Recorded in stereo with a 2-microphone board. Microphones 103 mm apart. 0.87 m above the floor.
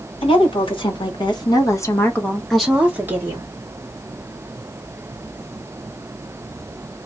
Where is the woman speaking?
60° left (ahead or behind), 1.5 m; by 3.5 s 25° right (ahead or behind), 1.2 m.